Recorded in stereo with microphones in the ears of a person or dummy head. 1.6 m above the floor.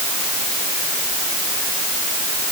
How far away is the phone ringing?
No phone ringing in this recording.